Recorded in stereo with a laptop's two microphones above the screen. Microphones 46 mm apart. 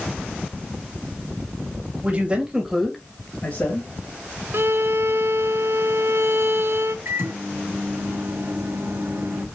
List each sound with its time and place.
2.0 s a man speaking: 35° right (ahead or behind), 2 m; by 4.4 s 60° left (ahead or behind), 3 m
4.5 s a violin: 60° right (ahead or behind), 0.5 m
7.0 s a microwave: 65° right (ahead or behind), 1.4 m